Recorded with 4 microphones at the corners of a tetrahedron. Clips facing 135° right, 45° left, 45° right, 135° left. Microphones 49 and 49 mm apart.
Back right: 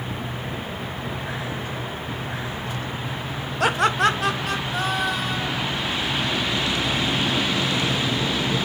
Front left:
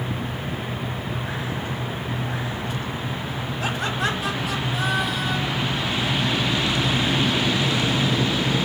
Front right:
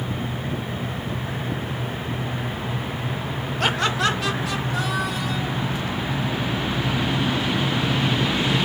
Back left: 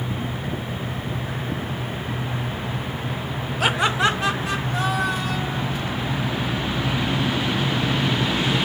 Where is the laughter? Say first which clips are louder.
Back right 7 dB, back left 2 dB; 140° right, 0.8 m; by 5.7 s 175° right, 3.5 m.